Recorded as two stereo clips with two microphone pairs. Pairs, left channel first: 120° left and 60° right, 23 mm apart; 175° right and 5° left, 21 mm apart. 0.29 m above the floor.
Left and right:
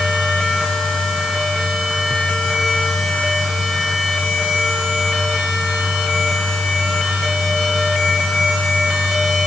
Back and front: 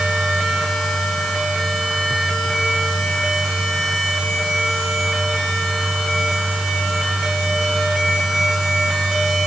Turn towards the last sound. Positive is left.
No sound to turn to.